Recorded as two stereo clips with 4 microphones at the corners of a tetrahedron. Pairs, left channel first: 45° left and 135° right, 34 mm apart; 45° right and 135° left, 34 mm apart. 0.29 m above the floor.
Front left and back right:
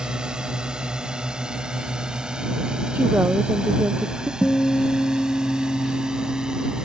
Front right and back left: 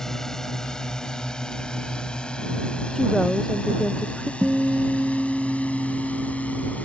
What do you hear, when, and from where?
0.0 s a drone: 105° right; by 6.8 s 75° right
3.0 s a woman speaking: 125° right
4.4 s a guitar: 80° left